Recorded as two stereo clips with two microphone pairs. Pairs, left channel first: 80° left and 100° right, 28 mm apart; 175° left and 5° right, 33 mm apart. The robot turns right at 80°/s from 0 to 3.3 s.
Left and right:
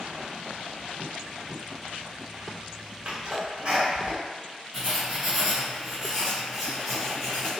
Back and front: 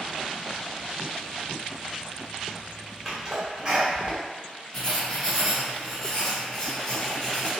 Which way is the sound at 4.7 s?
170° left.